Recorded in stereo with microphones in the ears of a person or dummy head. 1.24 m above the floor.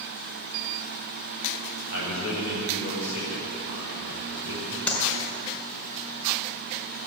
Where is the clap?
15° left (ahead or behind), 4.5 m.